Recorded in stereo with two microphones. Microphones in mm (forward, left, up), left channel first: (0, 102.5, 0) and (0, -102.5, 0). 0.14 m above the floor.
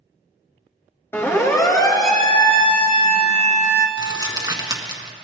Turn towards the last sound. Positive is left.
turn(degrees=-20)  # may be behind; listen again after turning